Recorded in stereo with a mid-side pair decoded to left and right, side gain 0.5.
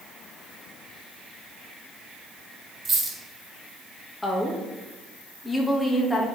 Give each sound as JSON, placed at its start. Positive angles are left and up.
{"t": 2.9, "sound": "a dropped coin", "azimuth_deg": -25, "distance_m": 2.5}
{"t": 4.2, "sound": "a woman speaking", "azimuth_deg": 20, "distance_m": 1.8}